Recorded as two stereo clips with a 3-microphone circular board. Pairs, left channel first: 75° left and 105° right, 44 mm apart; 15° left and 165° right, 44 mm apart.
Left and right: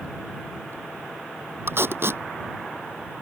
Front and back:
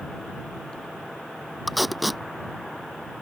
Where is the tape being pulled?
80° right.